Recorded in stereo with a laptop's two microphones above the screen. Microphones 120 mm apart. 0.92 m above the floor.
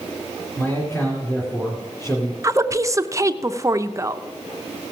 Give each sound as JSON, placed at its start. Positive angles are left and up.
{"t": 0.6, "sound": "a man speaking", "side_deg": 20, "distance_m": 2.5}
{"t": 2.4, "sound": "a woman speaking", "side_deg": -25, "distance_m": 0.6}